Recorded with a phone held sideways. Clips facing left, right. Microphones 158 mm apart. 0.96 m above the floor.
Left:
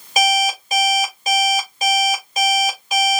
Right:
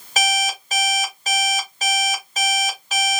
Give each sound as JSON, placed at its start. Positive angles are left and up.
{"t": 0.2, "sound": "an alarm clock", "side_deg": 10, "distance_m": 2.0}